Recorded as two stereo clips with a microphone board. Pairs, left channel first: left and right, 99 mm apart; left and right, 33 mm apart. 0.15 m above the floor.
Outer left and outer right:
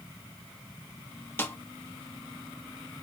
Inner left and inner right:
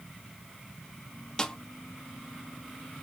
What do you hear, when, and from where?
1.4 s a snare drum: 20° left (ahead or behind), 0.7 m